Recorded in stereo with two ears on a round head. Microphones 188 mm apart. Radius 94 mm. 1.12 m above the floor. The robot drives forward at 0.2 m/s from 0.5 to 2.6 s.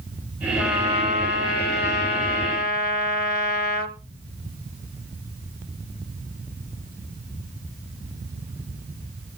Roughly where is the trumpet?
Left.